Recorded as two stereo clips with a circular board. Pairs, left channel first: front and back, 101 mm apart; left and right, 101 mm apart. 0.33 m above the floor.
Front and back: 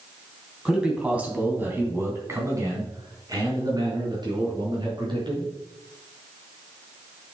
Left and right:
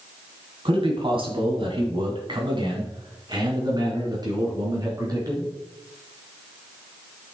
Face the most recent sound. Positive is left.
turn(degrees=-140)